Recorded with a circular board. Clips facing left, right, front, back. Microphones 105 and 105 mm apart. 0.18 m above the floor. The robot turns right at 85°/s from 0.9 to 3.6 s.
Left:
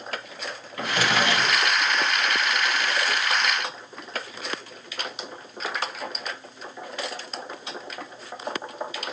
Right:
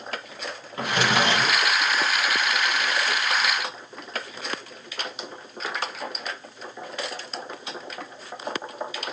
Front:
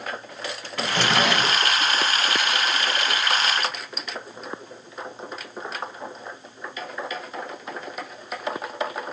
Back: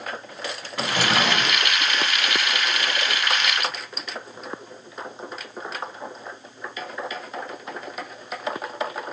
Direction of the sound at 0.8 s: 120° right.